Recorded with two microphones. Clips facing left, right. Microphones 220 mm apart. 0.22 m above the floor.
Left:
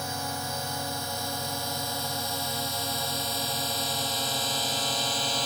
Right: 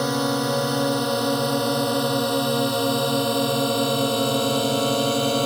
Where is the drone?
80° right; by 5.5 s 60° right (ahead or behind).